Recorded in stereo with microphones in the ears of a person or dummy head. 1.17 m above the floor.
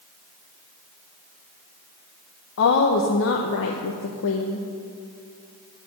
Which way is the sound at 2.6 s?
70° left (ahead or behind).